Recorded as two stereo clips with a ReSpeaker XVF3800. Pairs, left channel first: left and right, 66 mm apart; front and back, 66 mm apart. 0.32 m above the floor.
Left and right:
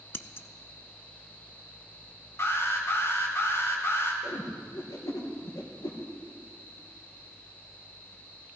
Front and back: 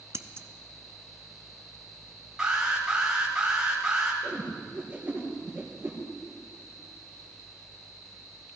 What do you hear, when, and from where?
0.1 s scissors: 140° left, 0.5 m
2.4 s an alarm: 105° left, 3 m
4.2 s a whoosh: 115° left, 3 m